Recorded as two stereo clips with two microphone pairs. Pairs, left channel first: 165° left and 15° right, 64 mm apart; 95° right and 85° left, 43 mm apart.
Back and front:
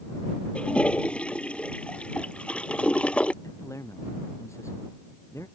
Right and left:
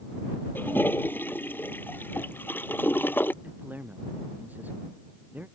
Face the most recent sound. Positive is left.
turn(degrees=125)